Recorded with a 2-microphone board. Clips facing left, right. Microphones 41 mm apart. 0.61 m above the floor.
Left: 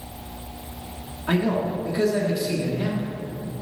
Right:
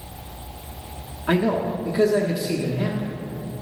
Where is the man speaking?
10° right (ahead or behind), 1.0 m.